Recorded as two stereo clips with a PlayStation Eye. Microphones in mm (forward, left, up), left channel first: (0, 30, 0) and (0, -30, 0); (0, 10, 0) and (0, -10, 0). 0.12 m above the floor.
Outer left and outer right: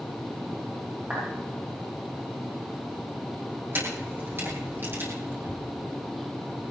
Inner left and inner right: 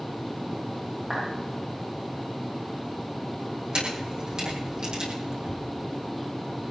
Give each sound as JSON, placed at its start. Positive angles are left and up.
{"t": 1.1, "sound": "a clap", "side_deg": -30, "distance_m": 10.0}
{"t": 3.7, "sound": "a camera shutter", "side_deg": -35, "distance_m": 6.5}